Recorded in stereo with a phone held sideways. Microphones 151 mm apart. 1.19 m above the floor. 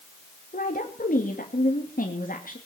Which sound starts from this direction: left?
A woman speaking, at 0.5 s.